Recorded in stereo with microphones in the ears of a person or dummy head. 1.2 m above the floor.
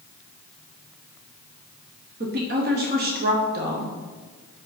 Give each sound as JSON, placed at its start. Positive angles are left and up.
{"t": 2.2, "sound": "a woman speaking", "side_deg": -40, "distance_m": 0.7}